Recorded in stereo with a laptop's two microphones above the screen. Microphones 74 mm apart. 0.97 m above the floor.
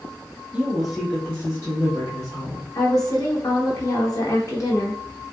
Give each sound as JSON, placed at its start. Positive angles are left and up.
{"t": 0.5, "sound": "a woman speaking", "side_deg": -15, "distance_m": 0.7}
{"t": 2.8, "sound": "a woman speaking", "side_deg": 45, "distance_m": 0.8}